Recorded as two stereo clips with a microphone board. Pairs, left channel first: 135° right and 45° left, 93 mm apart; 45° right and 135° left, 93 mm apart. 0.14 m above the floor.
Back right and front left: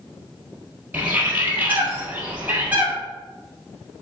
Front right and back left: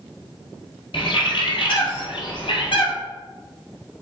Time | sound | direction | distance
0.9 | a bird | 25° right | 1.5 m